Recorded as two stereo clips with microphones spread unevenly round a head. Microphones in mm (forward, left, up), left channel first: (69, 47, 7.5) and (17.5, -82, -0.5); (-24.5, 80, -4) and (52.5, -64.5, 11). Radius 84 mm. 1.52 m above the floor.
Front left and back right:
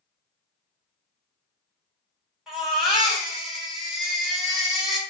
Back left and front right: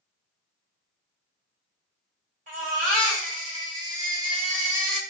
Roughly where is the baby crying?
Ahead.